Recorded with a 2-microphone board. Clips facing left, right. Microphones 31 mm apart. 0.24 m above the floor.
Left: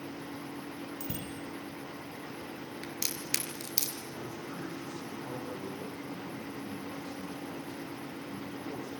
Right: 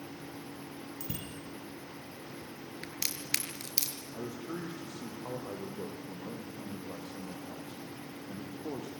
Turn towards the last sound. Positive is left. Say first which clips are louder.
# right 5 dB
turn(degrees=-80)